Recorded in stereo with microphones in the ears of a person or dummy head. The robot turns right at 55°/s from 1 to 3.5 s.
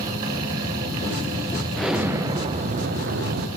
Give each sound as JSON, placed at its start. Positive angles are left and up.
{"t": 1.8, "sound": "an explosion", "azimuth_deg": 175, "distance_m": 0.6}